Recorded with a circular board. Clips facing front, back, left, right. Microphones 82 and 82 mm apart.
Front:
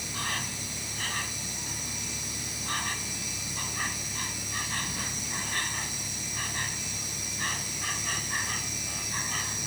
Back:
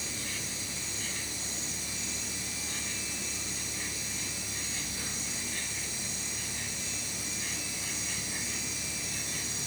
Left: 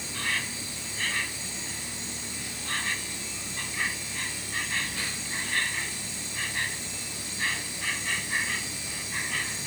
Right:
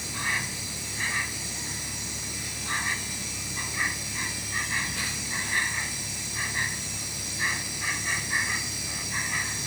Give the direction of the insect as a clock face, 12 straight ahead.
1 o'clock.